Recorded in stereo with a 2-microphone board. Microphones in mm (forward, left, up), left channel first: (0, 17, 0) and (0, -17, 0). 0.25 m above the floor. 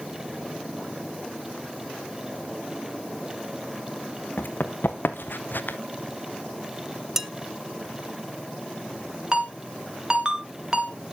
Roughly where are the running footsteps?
Left.